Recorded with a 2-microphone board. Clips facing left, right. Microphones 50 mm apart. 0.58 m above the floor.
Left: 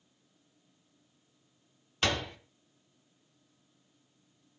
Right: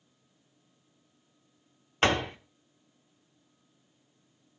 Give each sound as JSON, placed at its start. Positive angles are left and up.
{"t": 2.0, "sound": "a door slam", "side_deg": -40, "distance_m": 1.0}